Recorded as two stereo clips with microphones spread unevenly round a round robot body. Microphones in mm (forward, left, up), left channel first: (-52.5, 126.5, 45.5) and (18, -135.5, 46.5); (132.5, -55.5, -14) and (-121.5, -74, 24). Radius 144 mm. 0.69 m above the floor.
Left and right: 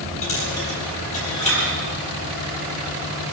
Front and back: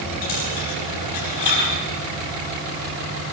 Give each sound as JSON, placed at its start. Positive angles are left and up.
{"t": 0.2, "sound": "a dropped coin", "azimuth_deg": 35, "distance_m": 8.0}